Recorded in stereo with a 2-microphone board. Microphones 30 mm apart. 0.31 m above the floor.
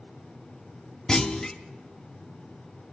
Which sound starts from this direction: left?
A clunk, at 1.1 s.